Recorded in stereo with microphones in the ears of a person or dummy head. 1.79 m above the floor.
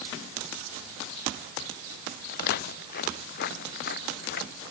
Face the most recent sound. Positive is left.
turn(degrees=60)  # may be behind; listen again after turning